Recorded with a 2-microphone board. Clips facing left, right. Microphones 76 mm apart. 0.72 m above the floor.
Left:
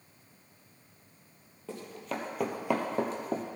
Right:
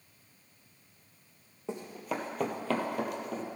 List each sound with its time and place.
1.7 s running footsteps: 20° right (ahead or behind), 1.4 m; by 3.4 s 45° left (ahead or behind), 1.3 m